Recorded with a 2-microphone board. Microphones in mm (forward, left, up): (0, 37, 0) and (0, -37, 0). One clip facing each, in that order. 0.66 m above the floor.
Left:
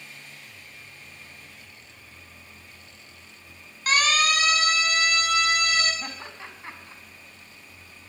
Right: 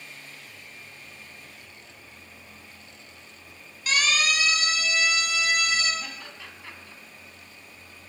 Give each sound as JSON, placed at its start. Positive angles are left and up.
{"t": 3.9, "sound": "a siren", "side_deg": 45, "distance_m": 7.5}
{"t": 6.0, "sound": "laughter", "side_deg": 30, "distance_m": 6.0}